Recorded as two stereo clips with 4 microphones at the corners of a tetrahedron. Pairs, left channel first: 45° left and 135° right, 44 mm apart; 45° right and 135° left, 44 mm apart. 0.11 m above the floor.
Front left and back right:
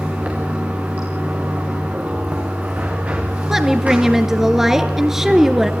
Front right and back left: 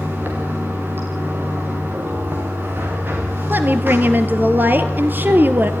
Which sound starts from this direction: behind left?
A woman speaking, at 3.5 s.